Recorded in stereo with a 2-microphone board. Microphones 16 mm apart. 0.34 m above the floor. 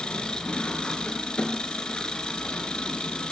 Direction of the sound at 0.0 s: 80° left.